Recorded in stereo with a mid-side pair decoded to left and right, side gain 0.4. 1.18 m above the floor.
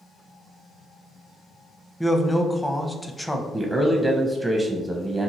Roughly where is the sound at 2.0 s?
Ahead.